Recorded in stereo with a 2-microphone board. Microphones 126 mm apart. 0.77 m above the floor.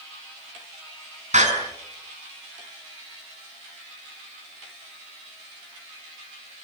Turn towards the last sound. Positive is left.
turn(degrees=-70)  # may be behind; listen again after turning